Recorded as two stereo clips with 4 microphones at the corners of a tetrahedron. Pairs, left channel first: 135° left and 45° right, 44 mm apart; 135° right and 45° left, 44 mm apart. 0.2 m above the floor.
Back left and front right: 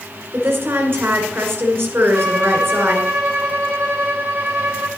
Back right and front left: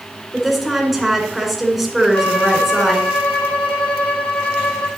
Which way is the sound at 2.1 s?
85° right.